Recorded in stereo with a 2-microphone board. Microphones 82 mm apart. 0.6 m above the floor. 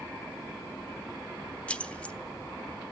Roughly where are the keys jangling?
Centre.